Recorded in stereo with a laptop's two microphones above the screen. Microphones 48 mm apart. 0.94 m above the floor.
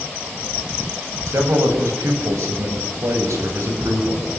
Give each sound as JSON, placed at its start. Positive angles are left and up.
{"t": 1.3, "sound": "a man speaking", "side_deg": -85, "distance_m": 5.5}